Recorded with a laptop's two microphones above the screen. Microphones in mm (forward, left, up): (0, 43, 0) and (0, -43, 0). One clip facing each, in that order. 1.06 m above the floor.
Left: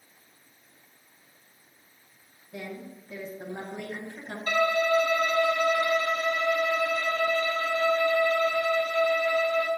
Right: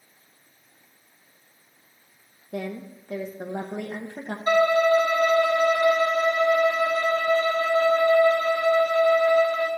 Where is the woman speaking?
60° right (ahead or behind), 0.9 m.